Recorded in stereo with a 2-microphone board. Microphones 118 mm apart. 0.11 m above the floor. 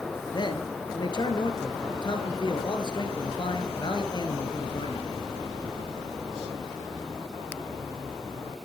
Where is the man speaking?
40° left (ahead or behind), 1.7 m.